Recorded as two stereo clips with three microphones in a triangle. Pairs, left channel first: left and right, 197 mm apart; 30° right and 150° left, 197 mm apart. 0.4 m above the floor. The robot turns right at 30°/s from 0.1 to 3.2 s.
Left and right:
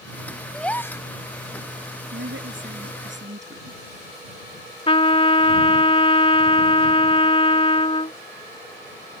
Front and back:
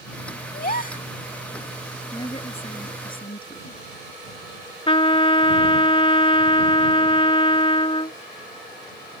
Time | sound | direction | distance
0.5 | a gasp | straight ahead | ?
2.1 | a woman speaking | 105° right | ?
4.9 | a trumpet | 30° left | ?